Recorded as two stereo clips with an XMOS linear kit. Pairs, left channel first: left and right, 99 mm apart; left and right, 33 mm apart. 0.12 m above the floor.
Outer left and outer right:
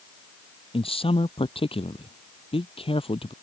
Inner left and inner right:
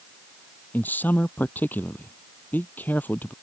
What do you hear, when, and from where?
0.7 s a man speaking: 70° left (ahead or behind)